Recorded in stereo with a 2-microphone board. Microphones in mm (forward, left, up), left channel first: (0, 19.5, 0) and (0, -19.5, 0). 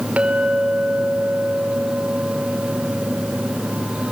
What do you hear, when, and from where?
0.2 s a clink: 35° right (ahead or behind), 3 m